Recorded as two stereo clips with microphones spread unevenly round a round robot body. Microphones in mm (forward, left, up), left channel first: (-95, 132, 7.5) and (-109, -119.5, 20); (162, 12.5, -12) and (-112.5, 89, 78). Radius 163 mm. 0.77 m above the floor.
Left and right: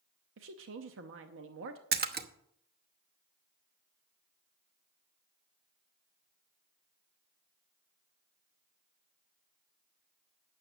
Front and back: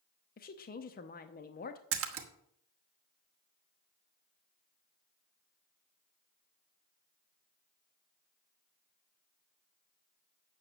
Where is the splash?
145° right, 1.2 m.